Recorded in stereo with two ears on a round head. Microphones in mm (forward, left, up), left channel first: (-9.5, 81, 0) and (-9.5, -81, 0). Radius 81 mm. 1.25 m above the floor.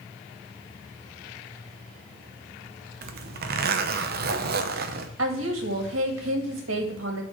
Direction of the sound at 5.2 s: 75° right (ahead or behind).